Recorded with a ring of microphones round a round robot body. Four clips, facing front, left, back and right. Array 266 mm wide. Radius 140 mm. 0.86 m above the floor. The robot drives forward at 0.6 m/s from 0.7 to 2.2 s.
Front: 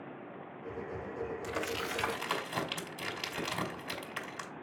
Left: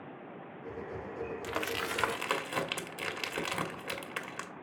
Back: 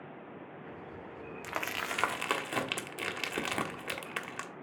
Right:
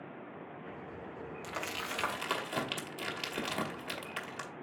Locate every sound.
1.4 s crumpling: 145° left, 0.9 m; by 4.5 s 155° left, 1.3 m